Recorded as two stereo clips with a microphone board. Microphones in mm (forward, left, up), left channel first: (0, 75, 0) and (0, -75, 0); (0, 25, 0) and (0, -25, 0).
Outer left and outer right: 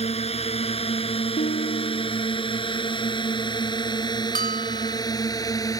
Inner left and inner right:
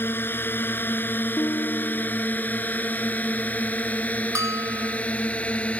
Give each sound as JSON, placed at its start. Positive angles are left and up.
{"t": 0.0, "sound": "a drone", "side_deg": 45}
{"t": 1.4, "sound": "a guitar", "side_deg": 70}
{"t": 4.3, "sound": "a bell", "side_deg": -70}